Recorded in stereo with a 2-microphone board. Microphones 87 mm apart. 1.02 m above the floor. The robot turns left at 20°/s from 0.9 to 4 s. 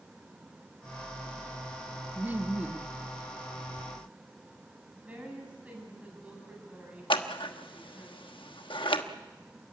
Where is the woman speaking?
15° right (ahead or behind), 8.5 m.